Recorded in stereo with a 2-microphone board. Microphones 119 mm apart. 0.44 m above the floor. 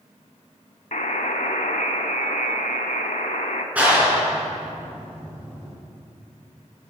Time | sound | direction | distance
0.9 | a buzzer | 85° left | 1.0 m
3.8 | a clap | 10° right (ahead or behind) | 3.5 m